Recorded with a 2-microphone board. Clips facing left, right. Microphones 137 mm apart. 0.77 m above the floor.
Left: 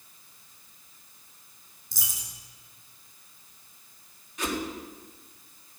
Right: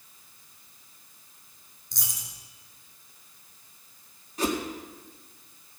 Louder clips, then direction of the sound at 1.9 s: Even; 5° left (ahead or behind).